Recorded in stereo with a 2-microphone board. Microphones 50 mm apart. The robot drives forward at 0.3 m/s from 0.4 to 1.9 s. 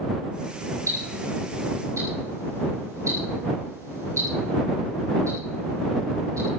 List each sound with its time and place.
0.9 s ticking: 80° right, 7.5 m; by 6.5 s 85° right, 7.5 m